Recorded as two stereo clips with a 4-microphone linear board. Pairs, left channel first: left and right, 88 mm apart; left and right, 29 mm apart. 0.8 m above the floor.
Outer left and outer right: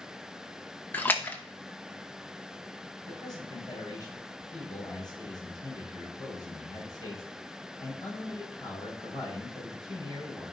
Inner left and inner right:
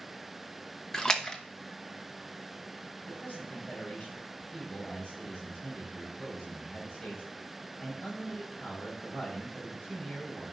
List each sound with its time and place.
0.9 s a splash: 20° left (ahead or behind), 0.9 m
3.1 s a man speaking: 55° left (ahead or behind), 4.5 m